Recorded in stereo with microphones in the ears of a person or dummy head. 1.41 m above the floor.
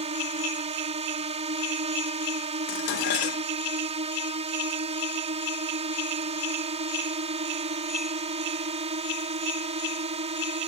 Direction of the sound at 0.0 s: 35° right (ahead or behind).